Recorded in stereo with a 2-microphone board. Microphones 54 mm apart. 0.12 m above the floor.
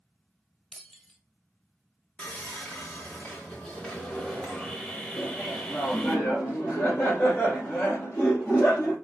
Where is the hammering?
No hammering in this recording.